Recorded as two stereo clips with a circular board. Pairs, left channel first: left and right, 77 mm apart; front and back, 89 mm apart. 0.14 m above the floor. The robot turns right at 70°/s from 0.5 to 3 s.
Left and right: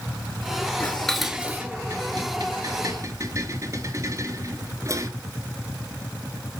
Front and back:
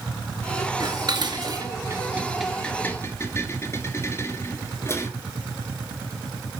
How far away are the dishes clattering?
About 1.3 m.